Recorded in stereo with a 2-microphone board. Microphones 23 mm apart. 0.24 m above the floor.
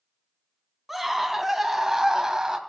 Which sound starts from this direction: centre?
A scream, at 0.9 s.